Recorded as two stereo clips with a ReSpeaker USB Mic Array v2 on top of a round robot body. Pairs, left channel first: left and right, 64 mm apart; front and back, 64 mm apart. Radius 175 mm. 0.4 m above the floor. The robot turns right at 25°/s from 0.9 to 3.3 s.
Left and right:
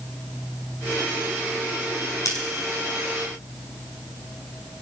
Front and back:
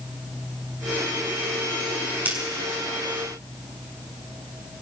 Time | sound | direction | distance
2.2 | scissors | 115° left | 7 m